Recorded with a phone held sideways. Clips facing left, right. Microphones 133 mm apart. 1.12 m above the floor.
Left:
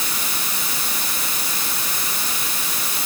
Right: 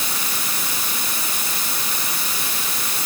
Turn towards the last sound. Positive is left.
No sound to turn to.